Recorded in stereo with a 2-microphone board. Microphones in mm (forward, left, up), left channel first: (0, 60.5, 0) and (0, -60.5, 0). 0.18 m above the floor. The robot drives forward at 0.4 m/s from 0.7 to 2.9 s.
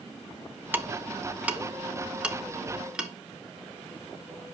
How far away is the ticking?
About 0.7 m.